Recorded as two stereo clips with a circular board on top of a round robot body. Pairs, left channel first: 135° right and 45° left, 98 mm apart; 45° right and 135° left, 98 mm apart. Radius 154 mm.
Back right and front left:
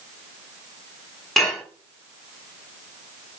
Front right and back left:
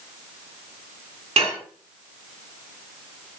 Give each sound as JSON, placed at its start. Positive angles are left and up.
{"t": 1.4, "sound": "dishes clattering", "azimuth_deg": 135, "distance_m": 6.5}